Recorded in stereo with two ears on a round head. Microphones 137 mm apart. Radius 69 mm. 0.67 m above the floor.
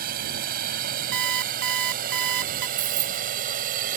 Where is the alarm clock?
80° right.